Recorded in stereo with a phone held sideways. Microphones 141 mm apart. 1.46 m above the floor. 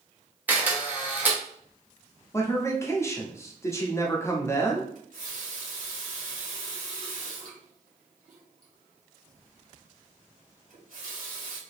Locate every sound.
0.5 s a camera shutter: 10° right (ahead or behind), 0.9 m
2.3 s a man speaking: 20° left (ahead or behind), 0.7 m
5.0 s a running tap: 70° right (ahead or behind), 1.2 m